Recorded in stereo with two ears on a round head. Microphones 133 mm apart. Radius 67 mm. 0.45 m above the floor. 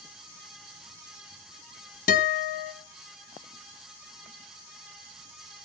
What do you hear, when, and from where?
2.1 s a guitar: 65° left (ahead or behind), 2 m